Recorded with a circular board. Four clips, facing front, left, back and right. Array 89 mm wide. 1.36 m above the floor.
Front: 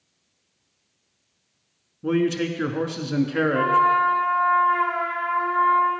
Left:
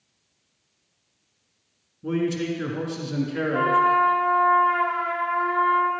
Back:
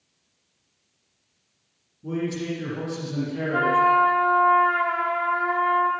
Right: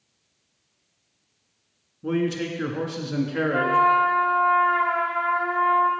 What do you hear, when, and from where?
2.0 s a man speaking: 15° right, 1.9 m
3.5 s a trumpet: 145° right, 4.5 m